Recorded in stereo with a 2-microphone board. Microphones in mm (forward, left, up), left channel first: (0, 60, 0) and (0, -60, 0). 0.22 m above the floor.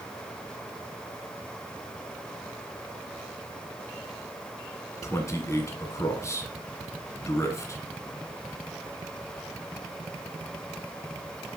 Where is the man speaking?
25° left (ahead or behind), 1.5 m.